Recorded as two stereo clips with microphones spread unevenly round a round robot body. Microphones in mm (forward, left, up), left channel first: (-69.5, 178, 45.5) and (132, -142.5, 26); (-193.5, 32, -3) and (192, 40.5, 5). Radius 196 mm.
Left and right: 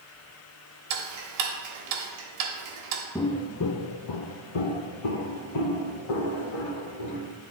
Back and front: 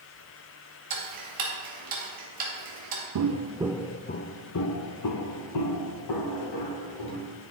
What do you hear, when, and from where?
0.9 s ticking: 60° right, 1.1 m
3.1 s footsteps: 40° left, 0.5 m; by 7.3 s 150° left, 2.5 m